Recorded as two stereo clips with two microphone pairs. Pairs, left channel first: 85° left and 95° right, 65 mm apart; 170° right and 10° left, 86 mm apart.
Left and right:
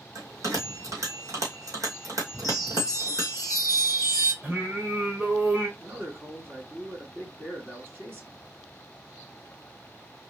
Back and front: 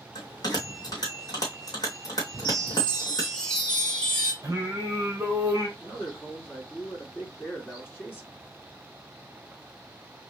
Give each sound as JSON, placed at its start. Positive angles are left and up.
{"t": 0.1, "sound": "a bell", "azimuth_deg": -130, "distance_m": 2.5}
{"t": 2.4, "sound": "a chime", "azimuth_deg": -95, "distance_m": 3.0}
{"t": 4.4, "sound": "singing", "azimuth_deg": -45, "distance_m": 1.9}
{"t": 5.8, "sound": "a man speaking", "azimuth_deg": -120, "distance_m": 2.0}